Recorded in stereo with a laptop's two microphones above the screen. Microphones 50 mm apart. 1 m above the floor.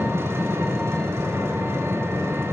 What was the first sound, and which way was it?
An engine running, 55° right (ahead or behind).